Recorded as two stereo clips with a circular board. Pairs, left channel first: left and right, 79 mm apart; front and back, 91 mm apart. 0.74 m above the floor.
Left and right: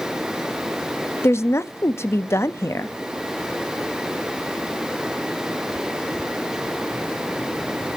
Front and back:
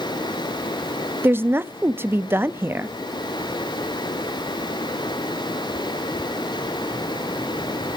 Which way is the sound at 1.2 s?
125° left.